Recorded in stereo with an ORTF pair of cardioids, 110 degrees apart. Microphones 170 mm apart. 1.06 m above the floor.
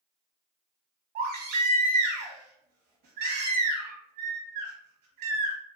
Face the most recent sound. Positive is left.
turn(degrees=-60)